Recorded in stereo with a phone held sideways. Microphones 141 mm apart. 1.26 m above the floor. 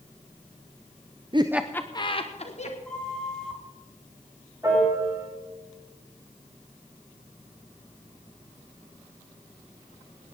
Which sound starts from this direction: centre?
A flute, at 2.9 s.